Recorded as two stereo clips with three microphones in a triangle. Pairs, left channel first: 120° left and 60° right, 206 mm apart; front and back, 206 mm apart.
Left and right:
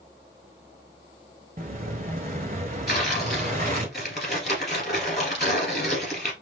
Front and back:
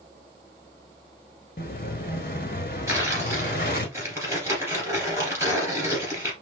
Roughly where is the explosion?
Ahead right.